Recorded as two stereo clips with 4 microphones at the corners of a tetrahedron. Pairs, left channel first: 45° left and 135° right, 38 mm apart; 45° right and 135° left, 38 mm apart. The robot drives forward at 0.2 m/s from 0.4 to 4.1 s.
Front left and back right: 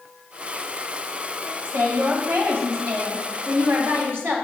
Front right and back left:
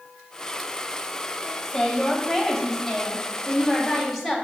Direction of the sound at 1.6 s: 130° right.